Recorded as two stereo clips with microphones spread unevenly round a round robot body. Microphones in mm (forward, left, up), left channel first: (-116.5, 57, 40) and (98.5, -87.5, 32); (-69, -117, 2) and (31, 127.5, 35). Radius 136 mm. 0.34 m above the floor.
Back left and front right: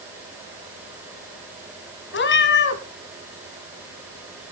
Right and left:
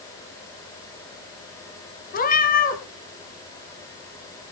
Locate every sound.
2.1 s a cat meowing: 170° right, 1.4 m